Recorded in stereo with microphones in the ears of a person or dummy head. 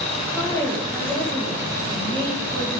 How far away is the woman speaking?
About 1.6 m.